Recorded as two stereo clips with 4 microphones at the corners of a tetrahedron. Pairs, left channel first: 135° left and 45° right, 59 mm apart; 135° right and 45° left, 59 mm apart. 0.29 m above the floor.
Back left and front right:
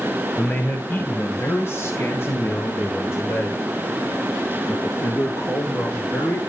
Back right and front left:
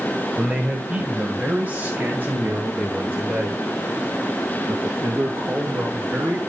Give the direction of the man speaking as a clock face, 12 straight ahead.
8 o'clock.